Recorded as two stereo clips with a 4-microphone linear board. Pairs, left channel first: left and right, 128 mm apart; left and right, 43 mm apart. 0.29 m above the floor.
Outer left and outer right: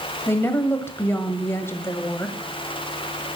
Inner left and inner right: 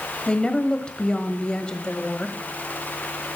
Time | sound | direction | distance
0.3 | a woman speaking | 20° left (ahead or behind) | 1.4 m